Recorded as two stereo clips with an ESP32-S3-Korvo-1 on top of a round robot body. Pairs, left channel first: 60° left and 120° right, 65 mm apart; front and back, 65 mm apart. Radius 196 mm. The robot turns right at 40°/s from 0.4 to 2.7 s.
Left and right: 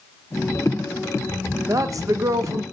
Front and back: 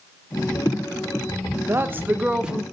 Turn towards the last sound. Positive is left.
turn(degrees=-95)